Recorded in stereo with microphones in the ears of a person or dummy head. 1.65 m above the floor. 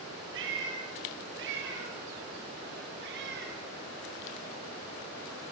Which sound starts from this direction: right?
A cat meowing, at 0.3 s.